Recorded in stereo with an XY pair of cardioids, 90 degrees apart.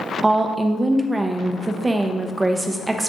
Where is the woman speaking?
20° right, 0.8 m.